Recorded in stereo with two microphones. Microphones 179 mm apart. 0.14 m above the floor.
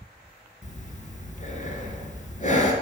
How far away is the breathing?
About 1.3 m.